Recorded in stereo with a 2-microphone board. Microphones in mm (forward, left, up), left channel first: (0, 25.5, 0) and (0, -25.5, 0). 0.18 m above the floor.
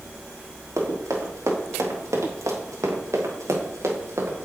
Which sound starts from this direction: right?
Running footsteps, at 0.8 s.